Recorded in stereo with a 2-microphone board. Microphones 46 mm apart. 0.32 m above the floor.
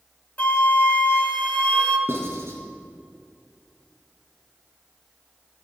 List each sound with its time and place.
0.4 s a flute: 35° left (ahead or behind), 1.1 m
2.1 s writing: 70° right (ahead or behind), 3 m